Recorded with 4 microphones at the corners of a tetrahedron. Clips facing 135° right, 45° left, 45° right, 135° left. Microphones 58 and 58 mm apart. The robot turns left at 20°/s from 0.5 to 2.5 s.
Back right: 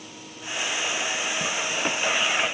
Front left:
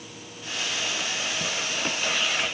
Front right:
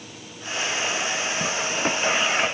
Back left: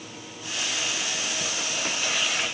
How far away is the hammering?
No hammering in this recording.